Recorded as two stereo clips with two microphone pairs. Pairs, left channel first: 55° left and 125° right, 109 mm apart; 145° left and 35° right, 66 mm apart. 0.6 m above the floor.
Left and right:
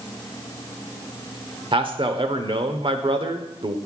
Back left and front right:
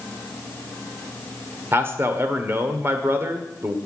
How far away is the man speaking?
About 1.4 m.